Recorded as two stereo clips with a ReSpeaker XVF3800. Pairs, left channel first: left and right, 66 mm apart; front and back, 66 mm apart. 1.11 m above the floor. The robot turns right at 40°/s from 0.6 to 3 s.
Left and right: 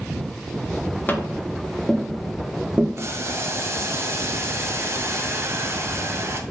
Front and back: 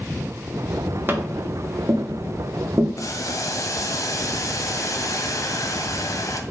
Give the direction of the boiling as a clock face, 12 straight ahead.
1 o'clock.